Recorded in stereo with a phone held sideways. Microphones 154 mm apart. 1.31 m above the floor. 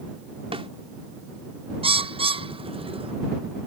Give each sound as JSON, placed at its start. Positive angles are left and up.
{"t": 0.5, "sound": "a snare drum", "side_deg": -40}
{"t": 1.8, "sound": "a bird", "side_deg": -40}